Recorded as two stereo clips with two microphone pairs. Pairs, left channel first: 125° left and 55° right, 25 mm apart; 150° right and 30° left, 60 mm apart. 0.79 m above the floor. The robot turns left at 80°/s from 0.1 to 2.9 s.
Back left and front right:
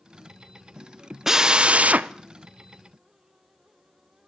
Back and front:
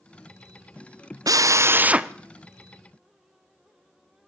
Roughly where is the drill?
Ahead.